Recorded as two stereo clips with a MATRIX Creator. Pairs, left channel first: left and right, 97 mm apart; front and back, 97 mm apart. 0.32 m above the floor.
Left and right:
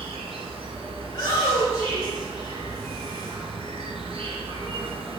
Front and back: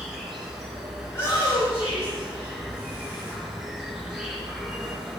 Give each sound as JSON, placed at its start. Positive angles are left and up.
{"t": 0.0, "sound": "an insect", "azimuth_deg": -95, "distance_m": 1.3}
{"t": 1.1, "sound": "a shout", "azimuth_deg": 55, "distance_m": 1.3}